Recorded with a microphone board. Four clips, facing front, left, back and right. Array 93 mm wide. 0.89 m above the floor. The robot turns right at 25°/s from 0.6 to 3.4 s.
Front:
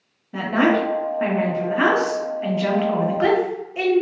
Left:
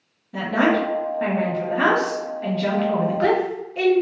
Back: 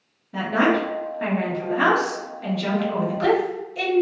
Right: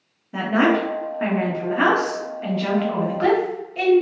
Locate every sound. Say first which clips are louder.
0.3 s a woman speaking: right 1 dB, front 2 dB; 65° right, 0.7 m; by 4.0 s 5° left, 0.7 m